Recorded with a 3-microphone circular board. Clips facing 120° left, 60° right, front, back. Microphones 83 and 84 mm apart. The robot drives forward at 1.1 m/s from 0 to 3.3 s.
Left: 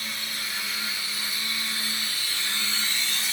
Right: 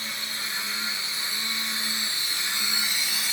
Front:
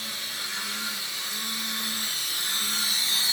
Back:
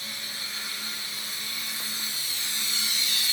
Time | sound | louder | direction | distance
0.0 | running water | even, front 2 dB | 5° left | 4 m